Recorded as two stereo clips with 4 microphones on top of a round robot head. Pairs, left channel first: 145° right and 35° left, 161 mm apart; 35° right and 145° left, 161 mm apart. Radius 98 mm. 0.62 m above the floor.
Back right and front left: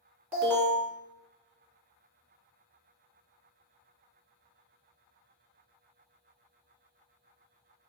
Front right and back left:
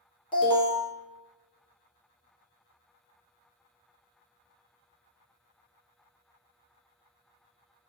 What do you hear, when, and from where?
0.3 s an alarm: 40° right, 2 m